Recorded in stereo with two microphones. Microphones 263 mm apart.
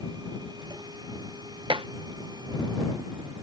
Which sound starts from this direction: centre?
Dishes clattering, at 1.7 s.